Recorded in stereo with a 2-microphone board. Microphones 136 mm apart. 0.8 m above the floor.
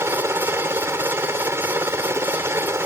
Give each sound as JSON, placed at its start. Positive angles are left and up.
{"t": 0.0, "sound": "a helicopter", "side_deg": -20}